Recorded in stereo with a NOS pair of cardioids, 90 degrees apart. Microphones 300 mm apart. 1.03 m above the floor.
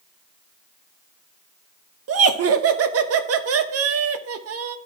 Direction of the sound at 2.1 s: 55° right.